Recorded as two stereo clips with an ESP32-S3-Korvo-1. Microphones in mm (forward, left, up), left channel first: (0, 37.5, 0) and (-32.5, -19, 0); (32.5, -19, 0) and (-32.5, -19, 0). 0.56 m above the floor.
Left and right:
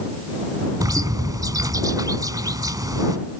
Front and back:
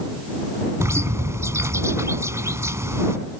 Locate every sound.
0.8 s a bird: 140° right